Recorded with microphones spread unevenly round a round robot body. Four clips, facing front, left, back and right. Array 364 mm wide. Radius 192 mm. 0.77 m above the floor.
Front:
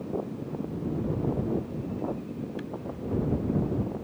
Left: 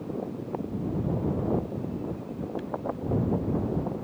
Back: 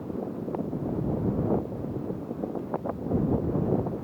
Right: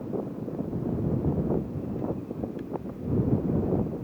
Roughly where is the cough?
No cough in this recording.